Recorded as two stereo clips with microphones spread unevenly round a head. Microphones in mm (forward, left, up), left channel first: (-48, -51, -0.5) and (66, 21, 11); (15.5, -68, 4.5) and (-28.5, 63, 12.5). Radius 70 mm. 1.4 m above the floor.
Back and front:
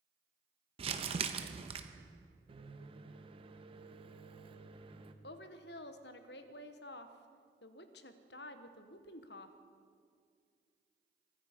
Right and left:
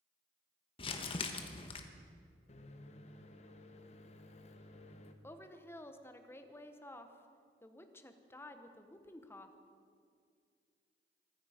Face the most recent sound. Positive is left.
turn(degrees=-145)